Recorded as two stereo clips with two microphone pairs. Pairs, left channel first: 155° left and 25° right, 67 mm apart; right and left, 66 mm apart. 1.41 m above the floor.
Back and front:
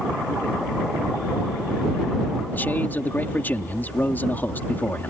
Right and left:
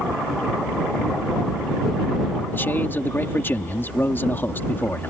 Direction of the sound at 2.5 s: 145° right.